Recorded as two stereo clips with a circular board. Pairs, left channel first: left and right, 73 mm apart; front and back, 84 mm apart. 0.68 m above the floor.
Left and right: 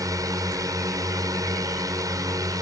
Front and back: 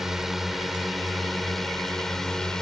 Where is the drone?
95° right; by 2.6 s 80° right.